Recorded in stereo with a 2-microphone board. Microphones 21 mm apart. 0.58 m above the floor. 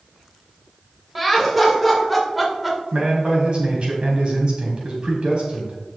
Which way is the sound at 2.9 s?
55° right (ahead or behind).